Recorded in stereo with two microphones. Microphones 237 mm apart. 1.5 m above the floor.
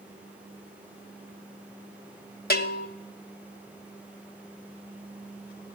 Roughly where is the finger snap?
I don't hear a finger snap.